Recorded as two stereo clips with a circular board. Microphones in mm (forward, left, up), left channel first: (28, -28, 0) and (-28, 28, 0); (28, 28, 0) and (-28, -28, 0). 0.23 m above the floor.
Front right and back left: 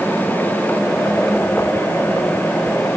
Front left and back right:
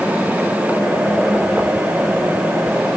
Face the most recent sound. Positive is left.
No sound to turn to.